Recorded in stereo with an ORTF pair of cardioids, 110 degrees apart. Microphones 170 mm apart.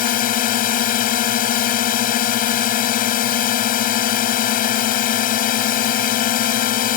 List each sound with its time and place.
0.0 s a drone: 60° left